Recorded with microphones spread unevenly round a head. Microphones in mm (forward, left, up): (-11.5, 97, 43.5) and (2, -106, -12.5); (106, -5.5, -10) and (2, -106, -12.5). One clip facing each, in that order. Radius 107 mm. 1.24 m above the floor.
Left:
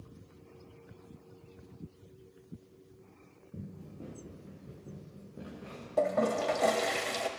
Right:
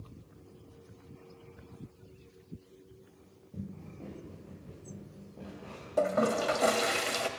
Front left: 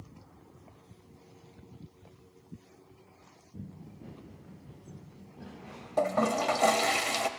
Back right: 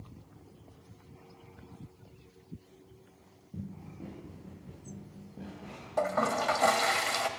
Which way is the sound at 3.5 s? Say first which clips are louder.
Right 2 dB, back right 3 dB; 170° left.